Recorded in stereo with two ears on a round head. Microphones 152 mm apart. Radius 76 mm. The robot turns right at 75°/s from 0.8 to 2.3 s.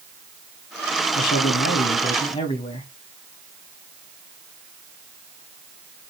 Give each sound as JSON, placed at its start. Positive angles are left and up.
{"t": 1.1, "sound": "a man speaking", "azimuth_deg": 60, "distance_m": 4.0}